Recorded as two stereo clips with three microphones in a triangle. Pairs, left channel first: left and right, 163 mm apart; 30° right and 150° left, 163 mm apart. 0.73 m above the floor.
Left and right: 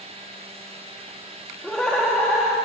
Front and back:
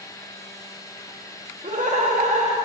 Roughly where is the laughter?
Behind.